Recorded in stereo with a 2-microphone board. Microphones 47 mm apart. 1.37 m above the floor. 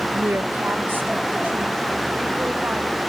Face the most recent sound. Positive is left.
turn(degrees=-45)  # may be behind; listen again after turning